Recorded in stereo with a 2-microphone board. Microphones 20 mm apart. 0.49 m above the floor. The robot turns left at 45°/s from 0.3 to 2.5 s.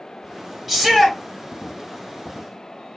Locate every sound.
0.7 s a shout: 5° right (ahead or behind), 2.5 m; by 1.2 s 15° left (ahead or behind), 2.5 m